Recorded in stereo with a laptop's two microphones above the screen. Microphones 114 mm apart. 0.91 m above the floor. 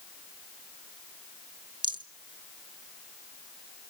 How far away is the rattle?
About 0.7 m.